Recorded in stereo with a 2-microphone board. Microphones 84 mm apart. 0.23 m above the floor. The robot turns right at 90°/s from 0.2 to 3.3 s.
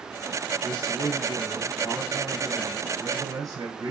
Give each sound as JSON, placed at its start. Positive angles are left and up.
{"t": 0.6, "sound": "a man speaking", "azimuth_deg": 5, "distance_m": 1.5}